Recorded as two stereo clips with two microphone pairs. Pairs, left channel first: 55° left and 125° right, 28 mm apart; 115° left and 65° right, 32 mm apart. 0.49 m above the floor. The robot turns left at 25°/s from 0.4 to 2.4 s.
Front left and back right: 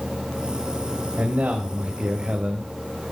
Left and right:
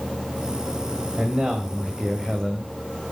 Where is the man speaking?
125° right, 2 m; by 2.7 s 155° right, 2 m.